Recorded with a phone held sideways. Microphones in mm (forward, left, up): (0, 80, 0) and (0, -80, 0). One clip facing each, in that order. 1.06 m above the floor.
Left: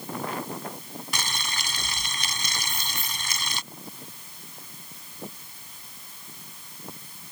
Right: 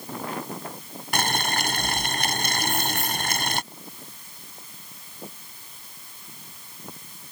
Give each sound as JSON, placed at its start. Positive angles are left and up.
{"t": 1.1, "sound": "boiling", "side_deg": -60}
{"t": 2.6, "sound": "keys jangling", "side_deg": -80}